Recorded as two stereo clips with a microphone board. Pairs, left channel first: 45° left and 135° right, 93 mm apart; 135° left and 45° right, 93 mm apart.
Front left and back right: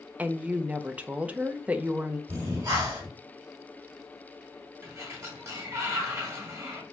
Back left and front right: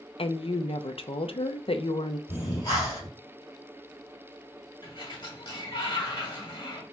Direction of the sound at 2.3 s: 175° left.